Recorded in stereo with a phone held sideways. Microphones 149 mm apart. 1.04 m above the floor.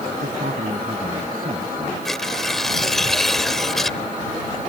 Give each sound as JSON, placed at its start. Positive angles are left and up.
{"t": 0.2, "sound": "a man speaking", "side_deg": -75}
{"t": 2.0, "sound": "tearing paper", "side_deg": 0}